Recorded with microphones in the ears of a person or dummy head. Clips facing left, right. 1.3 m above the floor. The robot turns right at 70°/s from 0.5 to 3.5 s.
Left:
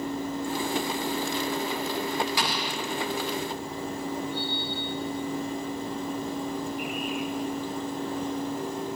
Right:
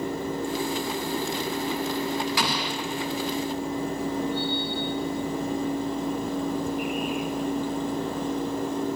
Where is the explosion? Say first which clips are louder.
Right 2 dB; 60° right (ahead or behind), 0.6 m; by 2.8 s 55° right (ahead or behind), 0.6 m.